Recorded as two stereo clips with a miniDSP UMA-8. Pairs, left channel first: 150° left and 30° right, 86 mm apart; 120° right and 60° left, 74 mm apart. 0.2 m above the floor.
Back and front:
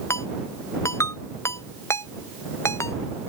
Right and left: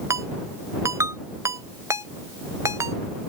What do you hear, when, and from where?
0.1 s a ringtone: 100° left